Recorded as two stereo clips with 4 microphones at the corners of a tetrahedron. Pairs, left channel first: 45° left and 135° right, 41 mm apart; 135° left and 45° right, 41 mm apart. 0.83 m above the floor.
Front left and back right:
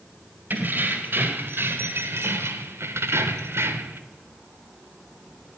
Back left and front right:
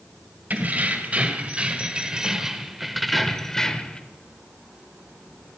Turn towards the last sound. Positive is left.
turn(degrees=-155)